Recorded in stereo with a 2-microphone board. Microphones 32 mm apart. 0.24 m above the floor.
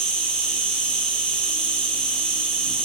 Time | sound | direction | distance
0.0 | an insect | 25° left (ahead or behind) | 2.5 m